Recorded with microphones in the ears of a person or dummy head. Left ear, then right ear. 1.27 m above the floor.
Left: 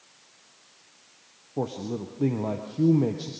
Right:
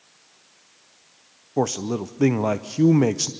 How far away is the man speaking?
About 0.5 m.